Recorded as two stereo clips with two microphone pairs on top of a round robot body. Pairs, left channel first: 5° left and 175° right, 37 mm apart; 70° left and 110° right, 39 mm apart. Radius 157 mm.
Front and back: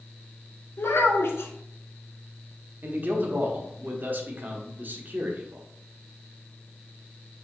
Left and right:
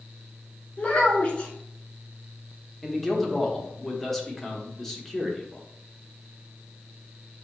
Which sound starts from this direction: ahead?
A child speaking, at 0.8 s.